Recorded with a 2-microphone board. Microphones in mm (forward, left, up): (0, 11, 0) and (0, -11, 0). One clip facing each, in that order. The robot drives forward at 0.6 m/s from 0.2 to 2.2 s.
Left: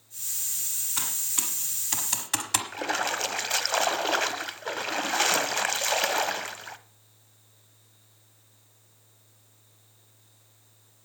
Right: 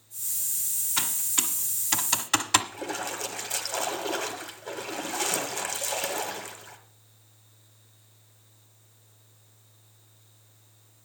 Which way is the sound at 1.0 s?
10° right (ahead or behind).